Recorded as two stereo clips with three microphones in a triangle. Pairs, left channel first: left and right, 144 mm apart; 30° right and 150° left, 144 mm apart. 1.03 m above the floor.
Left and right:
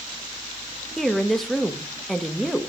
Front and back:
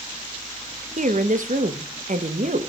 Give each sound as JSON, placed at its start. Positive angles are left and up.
{"t": 1.0, "sound": "a woman speaking", "azimuth_deg": 180, "distance_m": 0.8}